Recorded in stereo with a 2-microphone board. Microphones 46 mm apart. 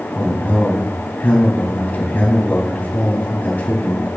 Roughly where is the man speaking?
Left.